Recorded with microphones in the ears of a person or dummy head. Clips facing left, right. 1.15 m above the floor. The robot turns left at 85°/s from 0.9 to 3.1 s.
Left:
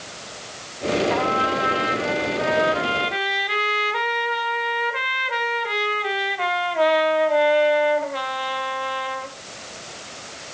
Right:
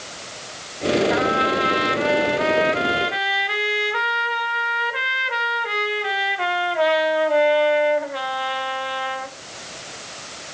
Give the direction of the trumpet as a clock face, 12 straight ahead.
12 o'clock.